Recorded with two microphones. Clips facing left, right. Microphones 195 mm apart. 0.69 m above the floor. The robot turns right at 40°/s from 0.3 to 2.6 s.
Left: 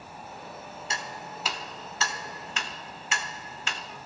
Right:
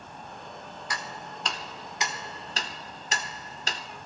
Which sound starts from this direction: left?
Ticking, at 0.9 s.